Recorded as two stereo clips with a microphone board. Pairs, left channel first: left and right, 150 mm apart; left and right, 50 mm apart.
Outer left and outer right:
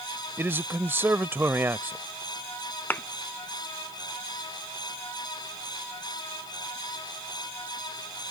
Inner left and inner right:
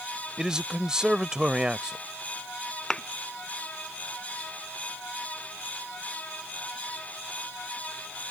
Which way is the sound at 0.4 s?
15° right (ahead or behind).